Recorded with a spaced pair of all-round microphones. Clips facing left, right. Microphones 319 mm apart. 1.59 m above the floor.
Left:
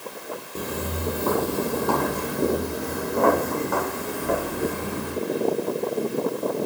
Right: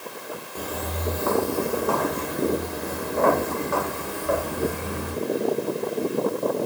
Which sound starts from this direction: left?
Footsteps, at 0.6 s.